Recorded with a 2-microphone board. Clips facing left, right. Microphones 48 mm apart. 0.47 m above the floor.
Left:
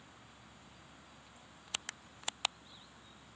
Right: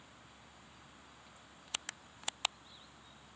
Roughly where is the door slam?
No door slam in this recording.